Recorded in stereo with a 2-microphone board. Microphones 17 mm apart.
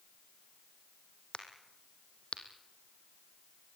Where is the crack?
65° left (ahead or behind), 2.5 m.